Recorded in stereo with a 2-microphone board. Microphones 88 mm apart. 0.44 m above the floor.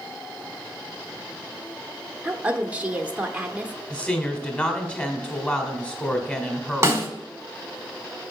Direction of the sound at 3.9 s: 15° left (ahead or behind).